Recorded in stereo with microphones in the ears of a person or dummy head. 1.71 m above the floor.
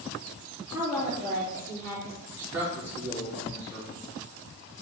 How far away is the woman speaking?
About 4 m.